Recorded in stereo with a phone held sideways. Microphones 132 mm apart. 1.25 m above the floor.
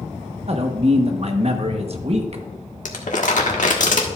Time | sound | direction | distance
0.5 | a man speaking | 50° right (ahead or behind) | 1.0 m
2.9 | crumpling | 75° left (ahead or behind) | 1.4 m